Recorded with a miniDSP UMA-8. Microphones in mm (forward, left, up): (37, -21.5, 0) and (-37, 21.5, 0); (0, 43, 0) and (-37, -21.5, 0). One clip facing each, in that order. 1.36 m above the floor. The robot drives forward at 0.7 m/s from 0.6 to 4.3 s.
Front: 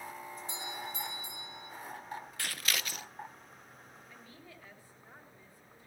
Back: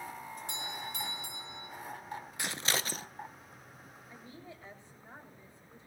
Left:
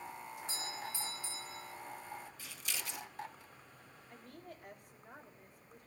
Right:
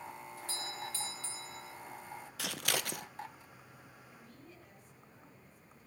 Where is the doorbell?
130° left, 5 m; by 1.7 s 135° left, 5.5 m.